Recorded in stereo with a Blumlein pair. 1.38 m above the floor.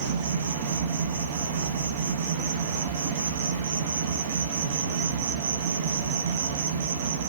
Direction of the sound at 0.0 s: 55° right.